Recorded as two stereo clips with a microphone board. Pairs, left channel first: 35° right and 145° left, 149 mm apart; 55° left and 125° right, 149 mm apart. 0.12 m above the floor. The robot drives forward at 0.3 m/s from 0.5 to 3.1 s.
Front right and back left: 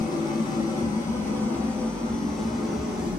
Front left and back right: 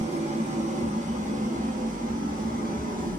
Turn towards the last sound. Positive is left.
turn(degrees=-130)